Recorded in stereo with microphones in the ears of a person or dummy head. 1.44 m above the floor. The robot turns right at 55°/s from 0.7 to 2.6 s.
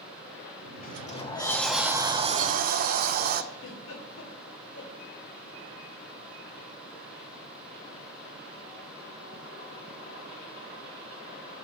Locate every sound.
0.8 s a sliding door: 130° left, 0.8 m; by 3.4 s 130° right, 0.8 m
3.5 s a giggle: 70° left (ahead or behind), 2.5 m